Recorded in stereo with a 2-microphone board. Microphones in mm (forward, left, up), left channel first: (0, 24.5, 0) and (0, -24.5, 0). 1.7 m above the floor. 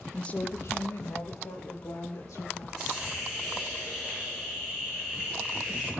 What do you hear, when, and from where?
0.1 s a woman speaking: 10° left (ahead or behind), 0.5 m; by 2.7 s 90° left, 2.5 m
2.8 s a hiss: 10° right (ahead or behind), 4.5 m